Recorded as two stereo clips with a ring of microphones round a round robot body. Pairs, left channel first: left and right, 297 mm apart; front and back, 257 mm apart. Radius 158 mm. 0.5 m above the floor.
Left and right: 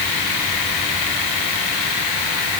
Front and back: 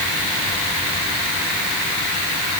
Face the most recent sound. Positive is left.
No sound to turn to.